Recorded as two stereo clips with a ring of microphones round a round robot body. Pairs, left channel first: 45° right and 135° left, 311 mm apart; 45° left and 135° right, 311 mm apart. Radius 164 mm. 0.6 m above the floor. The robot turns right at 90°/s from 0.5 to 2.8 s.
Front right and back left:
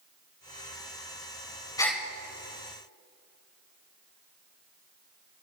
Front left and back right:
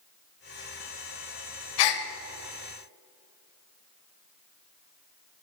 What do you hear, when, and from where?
1.8 s a gasp: 35° left, 1.1 m; by 2.0 s 55° left, 1.1 m